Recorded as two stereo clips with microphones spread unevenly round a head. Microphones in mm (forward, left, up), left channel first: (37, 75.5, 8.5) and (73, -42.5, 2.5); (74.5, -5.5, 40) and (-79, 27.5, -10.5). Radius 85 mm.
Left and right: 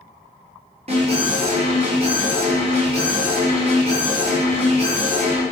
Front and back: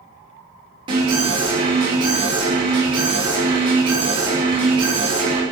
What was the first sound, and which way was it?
An alarm, 130° right.